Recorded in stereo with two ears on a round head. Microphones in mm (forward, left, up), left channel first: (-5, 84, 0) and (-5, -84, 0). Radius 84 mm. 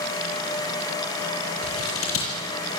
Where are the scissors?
85° left, 9 m.